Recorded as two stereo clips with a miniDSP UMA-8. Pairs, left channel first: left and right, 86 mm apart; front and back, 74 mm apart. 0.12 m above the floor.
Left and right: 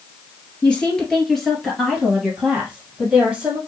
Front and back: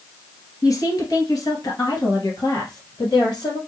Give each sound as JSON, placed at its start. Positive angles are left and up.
{"t": 0.6, "sound": "a woman speaking", "azimuth_deg": 15, "distance_m": 1.9}